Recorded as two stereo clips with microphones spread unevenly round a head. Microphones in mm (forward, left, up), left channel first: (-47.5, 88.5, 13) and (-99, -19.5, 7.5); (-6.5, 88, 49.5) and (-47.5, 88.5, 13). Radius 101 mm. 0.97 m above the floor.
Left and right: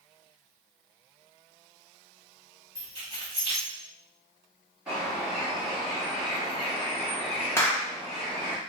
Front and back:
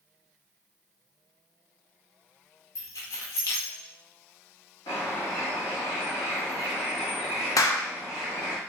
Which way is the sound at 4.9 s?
30° right.